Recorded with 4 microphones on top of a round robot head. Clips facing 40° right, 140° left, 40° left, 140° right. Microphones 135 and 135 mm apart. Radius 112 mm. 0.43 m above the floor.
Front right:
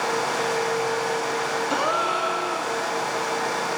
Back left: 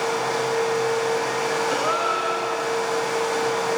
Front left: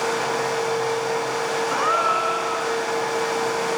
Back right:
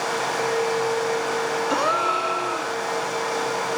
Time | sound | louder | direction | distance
1.7 | a gasp | back left 1 dB, even | 80° right | 1.5 m